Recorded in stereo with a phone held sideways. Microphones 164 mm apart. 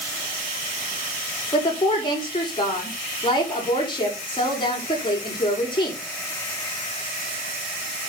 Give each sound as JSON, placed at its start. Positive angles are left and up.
{"t": 1.5, "sound": "a woman speaking", "side_deg": 30, "distance_m": 5.5}